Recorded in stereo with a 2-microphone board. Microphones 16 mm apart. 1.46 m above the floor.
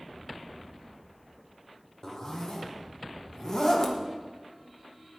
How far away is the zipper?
About 1.3 m.